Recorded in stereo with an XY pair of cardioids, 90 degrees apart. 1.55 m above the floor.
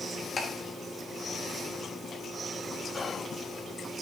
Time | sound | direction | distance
0.4 | ticking | 40° left | 3 m
2.9 | whispering | 40° left | 0.5 m